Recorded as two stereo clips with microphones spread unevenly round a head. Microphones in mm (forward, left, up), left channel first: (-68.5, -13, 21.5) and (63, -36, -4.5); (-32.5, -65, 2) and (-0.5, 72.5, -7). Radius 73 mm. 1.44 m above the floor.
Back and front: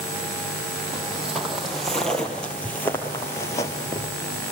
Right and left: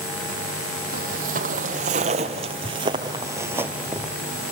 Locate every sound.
0.9 s footsteps: 80° left, 2.5 m; by 4.1 s 170° left, 1.7 m